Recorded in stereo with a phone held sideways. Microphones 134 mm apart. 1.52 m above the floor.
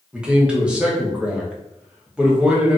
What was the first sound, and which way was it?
A man speaking, 10° right (ahead or behind).